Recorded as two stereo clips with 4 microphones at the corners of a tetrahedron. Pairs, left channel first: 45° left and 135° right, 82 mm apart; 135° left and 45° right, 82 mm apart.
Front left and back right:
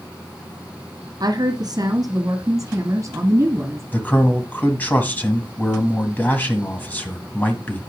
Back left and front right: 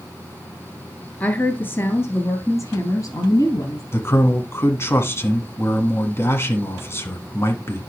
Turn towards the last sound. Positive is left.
turn(degrees=100)